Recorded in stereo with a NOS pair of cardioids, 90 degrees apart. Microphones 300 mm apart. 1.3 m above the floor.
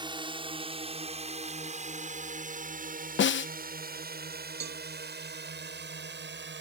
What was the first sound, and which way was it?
A drone, 15° right.